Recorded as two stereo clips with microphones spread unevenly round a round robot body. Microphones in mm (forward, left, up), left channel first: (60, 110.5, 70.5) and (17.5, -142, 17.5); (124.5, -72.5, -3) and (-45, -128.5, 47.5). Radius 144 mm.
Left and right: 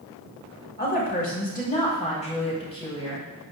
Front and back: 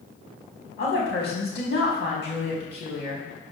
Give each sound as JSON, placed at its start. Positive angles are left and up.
{"t": 0.8, "sound": "a woman speaking", "azimuth_deg": 25, "distance_m": 4.0}